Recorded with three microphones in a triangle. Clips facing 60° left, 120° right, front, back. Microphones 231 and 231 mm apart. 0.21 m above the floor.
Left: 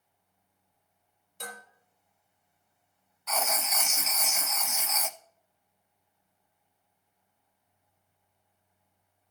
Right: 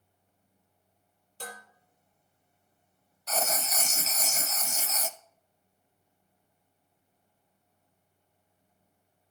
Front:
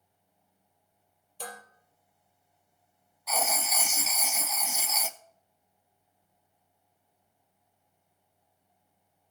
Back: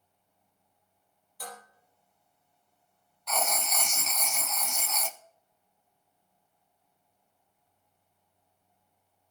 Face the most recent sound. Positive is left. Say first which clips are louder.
# right 1 dB, even
turn(degrees=-80)